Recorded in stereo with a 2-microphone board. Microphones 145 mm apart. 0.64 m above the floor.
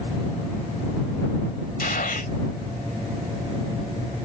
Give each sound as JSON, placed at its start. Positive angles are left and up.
{"t": 1.8, "sound": "a gunshot", "side_deg": 85}